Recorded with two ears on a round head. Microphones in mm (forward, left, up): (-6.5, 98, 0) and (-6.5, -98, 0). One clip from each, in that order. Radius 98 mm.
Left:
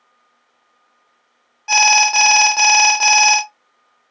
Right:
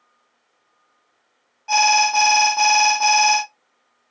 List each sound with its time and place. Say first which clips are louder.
1.7 s an alarm: left 3 dB; 40° left (ahead or behind), 0.6 m